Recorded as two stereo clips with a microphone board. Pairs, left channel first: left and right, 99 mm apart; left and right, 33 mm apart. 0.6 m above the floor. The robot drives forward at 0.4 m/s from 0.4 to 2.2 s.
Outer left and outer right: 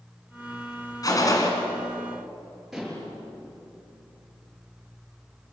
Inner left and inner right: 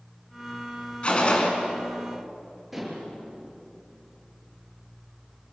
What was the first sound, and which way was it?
A gunshot, 35° left (ahead or behind).